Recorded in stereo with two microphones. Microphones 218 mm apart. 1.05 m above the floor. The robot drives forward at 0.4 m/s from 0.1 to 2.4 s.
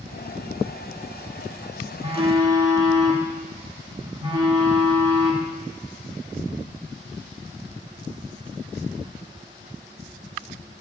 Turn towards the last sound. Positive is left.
turn(degrees=-25)  # may be behind; listen again after turning